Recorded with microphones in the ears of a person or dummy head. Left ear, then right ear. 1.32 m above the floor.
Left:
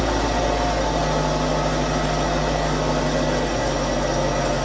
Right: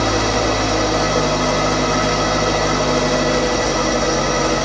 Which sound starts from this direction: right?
An engine running, at 0.0 s.